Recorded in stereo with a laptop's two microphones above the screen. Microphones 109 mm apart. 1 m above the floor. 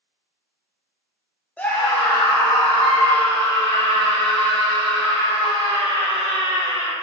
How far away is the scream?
About 0.8 m.